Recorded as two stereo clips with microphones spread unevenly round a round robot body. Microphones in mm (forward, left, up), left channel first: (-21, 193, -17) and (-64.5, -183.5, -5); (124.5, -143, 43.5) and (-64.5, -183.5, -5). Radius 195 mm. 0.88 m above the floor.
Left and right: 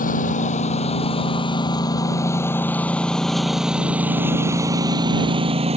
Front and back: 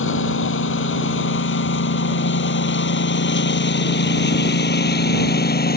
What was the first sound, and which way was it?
A lawn mower, 10° left.